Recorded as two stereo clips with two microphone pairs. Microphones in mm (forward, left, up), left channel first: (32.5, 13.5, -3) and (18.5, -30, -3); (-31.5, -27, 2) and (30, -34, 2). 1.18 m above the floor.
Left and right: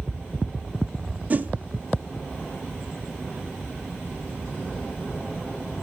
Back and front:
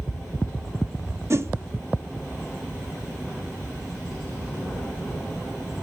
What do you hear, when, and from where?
1.3 s a whoosh: 55° right, 0.7 m